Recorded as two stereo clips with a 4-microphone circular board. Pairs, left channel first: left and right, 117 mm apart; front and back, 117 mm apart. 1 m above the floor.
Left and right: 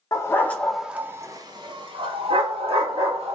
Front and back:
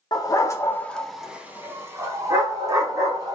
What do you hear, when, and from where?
0.1 s a dog barking: 40° left, 0.6 m; by 3.4 s 125° right, 1.5 m